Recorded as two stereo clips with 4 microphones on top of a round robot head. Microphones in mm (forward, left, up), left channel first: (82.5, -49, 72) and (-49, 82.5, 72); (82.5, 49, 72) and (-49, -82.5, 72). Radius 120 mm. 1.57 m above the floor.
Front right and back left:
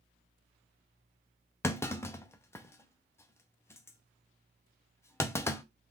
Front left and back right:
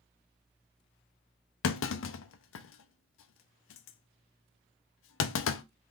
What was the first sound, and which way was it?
A clunk, 30° left.